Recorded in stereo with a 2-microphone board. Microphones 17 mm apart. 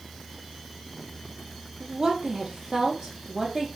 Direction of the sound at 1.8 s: 45° right (ahead or behind).